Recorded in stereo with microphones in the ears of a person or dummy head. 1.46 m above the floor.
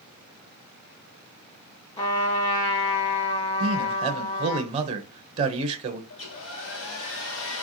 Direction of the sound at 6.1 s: 70° left (ahead or behind).